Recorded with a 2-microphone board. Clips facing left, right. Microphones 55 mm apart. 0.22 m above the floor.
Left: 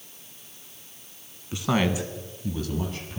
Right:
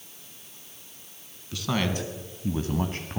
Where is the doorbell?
No doorbell in this recording.